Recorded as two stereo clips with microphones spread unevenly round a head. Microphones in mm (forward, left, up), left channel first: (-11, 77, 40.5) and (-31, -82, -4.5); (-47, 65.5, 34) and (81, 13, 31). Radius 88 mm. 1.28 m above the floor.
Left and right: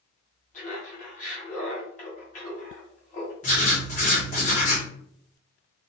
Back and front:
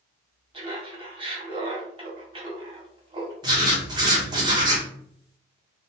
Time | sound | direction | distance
0.5 | laughter | 30° left | 1.9 m
3.4 | writing | 40° left | 1.7 m